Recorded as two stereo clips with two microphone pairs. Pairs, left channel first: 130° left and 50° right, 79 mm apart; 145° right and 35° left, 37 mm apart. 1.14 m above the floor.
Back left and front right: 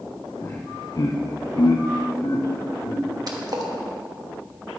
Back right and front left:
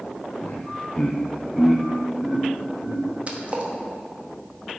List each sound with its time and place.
0.4 s laughter: straight behind, 0.9 m; by 3.0 s 95° left, 1.9 m
3.3 s a splash: 15° right, 1.1 m